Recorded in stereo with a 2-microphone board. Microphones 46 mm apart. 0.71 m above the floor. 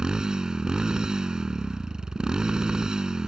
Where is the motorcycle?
15° right (ahead or behind).